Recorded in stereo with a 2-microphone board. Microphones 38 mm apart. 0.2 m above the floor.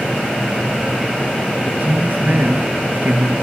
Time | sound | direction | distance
1.6 | a man speaking | 55° right (ahead or behind) | 3.5 m